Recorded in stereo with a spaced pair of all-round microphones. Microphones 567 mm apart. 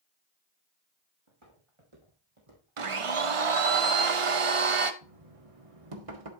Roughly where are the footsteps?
Right.